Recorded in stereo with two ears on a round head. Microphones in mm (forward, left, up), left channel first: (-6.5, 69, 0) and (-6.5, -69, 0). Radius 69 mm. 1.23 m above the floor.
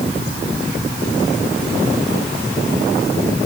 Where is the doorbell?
I don't hear a doorbell.